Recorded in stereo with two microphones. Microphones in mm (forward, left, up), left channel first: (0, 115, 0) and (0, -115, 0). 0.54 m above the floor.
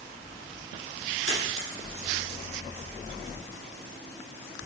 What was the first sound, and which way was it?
A dropped coin, 65° right (ahead or behind).